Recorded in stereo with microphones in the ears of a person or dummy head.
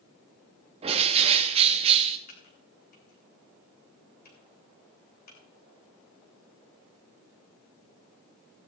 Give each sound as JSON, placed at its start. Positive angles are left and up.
{"t": 0.8, "sound": "a bird", "side_deg": -35, "distance_m": 1.3}
{"t": 2.3, "sound": "typing on a keyboard", "side_deg": 55, "distance_m": 2.5}